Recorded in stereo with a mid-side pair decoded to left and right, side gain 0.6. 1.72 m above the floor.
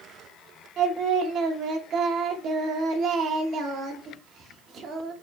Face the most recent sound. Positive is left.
turn(degrees=-55)